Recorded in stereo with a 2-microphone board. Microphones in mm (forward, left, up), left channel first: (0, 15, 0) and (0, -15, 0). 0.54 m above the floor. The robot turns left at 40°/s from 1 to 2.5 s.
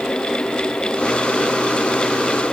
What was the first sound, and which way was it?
Only background noise.